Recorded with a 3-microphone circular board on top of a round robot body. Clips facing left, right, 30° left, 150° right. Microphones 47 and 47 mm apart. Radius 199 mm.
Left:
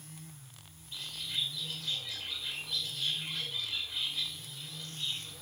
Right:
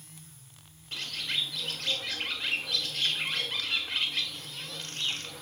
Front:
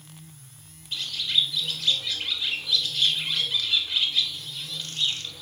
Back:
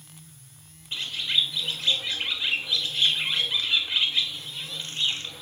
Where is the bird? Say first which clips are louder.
Right 5 dB, even; 90° right, 1.6 m.